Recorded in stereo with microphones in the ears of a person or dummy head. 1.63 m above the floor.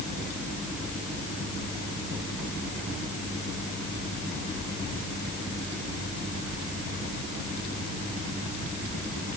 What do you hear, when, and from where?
Only background noise.